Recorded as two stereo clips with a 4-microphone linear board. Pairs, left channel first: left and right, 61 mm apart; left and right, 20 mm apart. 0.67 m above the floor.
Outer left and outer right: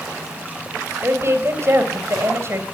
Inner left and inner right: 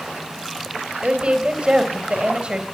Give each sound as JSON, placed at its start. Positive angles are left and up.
{"t": 1.0, "sound": "a woman speaking", "side_deg": -45, "distance_m": 3.5}